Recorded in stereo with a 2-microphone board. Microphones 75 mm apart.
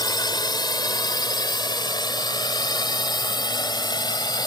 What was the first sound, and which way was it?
A drone, 65° left (ahead or behind).